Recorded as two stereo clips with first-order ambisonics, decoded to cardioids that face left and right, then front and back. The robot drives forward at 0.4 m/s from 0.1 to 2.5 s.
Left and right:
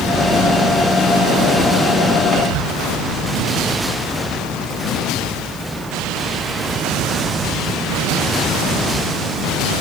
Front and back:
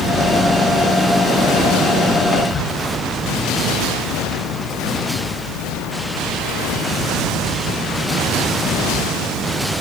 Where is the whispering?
60° right, 5 m.